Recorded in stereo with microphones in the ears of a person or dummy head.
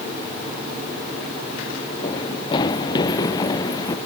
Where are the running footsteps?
25° left (ahead or behind); by 4.0 s 20° left (ahead or behind).